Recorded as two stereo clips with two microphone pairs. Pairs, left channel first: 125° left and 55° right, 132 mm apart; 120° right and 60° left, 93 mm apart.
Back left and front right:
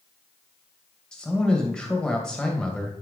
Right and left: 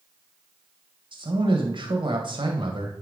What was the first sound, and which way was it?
A man speaking, 40° left.